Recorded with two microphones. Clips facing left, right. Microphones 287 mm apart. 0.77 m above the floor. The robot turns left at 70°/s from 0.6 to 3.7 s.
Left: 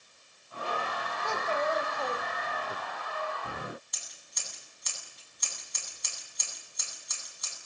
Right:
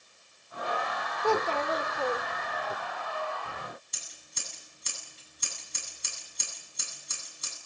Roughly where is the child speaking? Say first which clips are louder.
Right 5 dB; ahead right.